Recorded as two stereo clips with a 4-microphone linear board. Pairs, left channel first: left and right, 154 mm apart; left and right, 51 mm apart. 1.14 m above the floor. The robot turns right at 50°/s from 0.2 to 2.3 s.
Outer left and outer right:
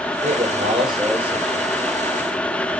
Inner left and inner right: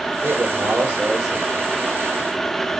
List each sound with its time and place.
0.2 s a man speaking: 60° right, 4.5 m; by 1.7 s 10° left, 4.5 m